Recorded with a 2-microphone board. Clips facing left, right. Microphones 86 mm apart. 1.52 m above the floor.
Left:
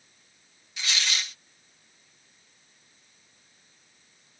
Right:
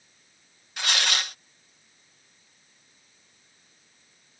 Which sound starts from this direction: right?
Tearing paper, at 0.8 s.